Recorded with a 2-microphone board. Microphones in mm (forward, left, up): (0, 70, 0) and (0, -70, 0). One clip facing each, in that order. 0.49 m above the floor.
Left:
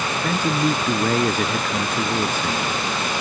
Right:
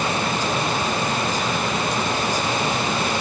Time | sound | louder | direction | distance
0.2 | a man speaking | left 2 dB | 60° left (ahead or behind) | ?